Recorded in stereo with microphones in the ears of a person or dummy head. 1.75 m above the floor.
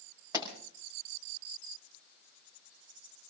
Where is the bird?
I don't hear a bird.